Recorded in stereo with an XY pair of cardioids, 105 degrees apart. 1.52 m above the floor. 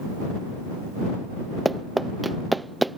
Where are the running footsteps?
15° right; by 3.0 s 5° right.